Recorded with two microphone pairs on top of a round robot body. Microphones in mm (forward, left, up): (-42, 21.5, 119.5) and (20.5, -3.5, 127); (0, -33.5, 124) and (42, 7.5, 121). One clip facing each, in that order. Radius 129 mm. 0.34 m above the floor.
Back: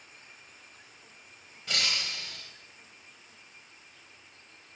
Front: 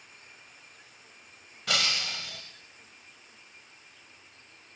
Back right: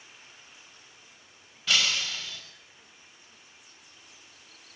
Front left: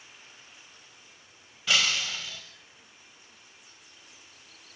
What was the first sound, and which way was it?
Breaking glass, 40° right.